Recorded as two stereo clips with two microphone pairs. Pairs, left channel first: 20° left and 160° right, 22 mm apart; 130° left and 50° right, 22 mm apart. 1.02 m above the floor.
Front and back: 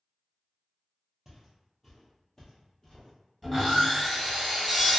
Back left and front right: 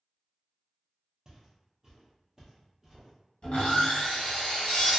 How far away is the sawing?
About 1.6 m.